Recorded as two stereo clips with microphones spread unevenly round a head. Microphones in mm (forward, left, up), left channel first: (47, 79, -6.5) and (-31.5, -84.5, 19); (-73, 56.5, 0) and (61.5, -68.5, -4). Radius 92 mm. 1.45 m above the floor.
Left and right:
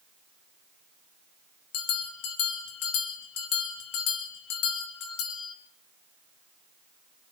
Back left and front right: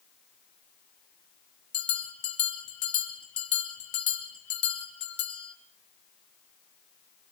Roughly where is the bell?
Left.